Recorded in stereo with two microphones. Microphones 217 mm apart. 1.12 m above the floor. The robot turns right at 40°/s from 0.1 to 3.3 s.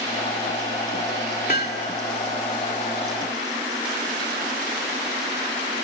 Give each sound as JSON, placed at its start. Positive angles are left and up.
{"t": 1.5, "sound": "hammering", "side_deg": 45, "distance_m": 2.5}